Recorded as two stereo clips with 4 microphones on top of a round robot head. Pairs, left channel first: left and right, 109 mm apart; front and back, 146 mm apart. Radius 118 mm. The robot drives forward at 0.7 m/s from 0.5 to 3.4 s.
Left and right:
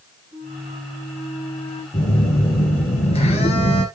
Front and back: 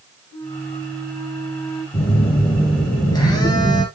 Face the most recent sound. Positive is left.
turn(degrees=65)